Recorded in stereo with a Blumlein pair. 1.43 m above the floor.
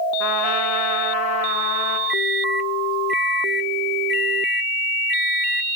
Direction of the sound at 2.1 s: 10° left.